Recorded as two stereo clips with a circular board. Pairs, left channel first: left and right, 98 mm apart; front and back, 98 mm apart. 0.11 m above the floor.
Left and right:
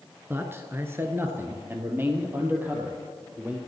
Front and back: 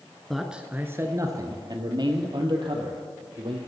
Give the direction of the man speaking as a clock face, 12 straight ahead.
3 o'clock.